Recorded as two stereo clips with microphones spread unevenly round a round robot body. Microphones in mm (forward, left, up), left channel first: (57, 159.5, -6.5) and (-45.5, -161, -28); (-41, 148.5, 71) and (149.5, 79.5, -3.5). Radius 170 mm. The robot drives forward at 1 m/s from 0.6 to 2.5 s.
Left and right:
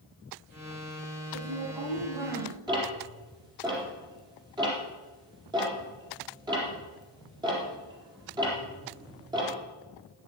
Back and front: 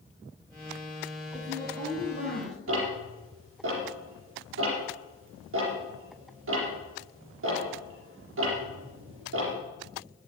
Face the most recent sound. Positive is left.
turn(degrees=-30)